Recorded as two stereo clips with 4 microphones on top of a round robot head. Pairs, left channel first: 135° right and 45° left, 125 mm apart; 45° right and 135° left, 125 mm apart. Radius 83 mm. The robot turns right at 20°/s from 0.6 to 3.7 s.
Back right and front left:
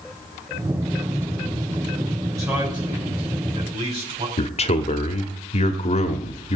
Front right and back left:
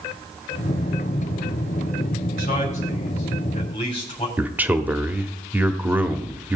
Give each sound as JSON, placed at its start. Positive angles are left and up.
{"t": 2.4, "sound": "a man speaking", "azimuth_deg": -20, "distance_m": 4.0}
{"t": 4.4, "sound": "a man speaking", "azimuth_deg": -150, "distance_m": 1.1}